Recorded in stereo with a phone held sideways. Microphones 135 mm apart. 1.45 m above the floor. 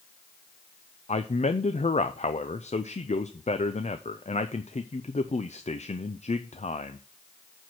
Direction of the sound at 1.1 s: 60° left (ahead or behind).